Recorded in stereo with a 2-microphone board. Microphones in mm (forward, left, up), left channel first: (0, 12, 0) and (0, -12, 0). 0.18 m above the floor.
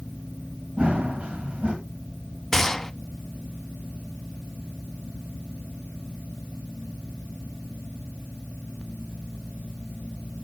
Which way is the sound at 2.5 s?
15° left (ahead or behind).